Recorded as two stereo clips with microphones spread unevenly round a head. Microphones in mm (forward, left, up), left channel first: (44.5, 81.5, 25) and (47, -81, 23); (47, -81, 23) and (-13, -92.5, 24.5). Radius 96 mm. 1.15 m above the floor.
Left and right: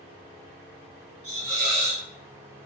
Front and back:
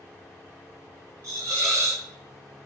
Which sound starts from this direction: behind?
A hiss, at 1.2 s.